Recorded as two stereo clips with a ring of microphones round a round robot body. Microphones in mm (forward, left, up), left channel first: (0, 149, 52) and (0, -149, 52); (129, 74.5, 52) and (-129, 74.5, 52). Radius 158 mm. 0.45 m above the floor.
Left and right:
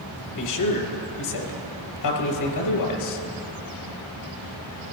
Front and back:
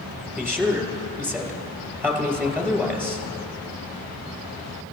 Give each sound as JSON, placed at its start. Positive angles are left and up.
{"t": 0.4, "sound": "a man speaking", "azimuth_deg": 100, "distance_m": 2.5}